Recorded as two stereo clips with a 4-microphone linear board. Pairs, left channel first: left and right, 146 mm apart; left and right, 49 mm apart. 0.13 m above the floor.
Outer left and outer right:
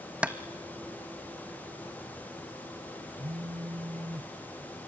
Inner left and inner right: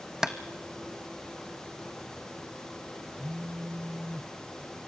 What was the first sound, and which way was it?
Tapping, 10° right (ahead or behind).